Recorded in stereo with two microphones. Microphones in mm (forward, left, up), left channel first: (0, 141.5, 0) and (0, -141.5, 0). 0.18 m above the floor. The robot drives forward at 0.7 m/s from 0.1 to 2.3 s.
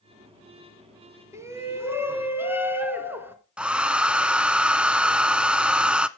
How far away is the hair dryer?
About 0.5 m.